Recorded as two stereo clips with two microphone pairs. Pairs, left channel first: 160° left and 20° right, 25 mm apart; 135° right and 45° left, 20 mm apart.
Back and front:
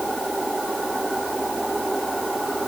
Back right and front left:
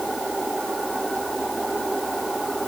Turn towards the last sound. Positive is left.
No sound to turn to.